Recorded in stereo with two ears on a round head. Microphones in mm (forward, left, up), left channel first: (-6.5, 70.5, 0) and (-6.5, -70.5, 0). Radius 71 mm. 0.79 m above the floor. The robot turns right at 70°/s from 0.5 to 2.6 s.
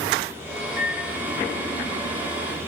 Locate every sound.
0.8 s a microwave: 45° left (ahead or behind), 0.6 m; by 1.1 s 70° left (ahead or behind), 0.6 m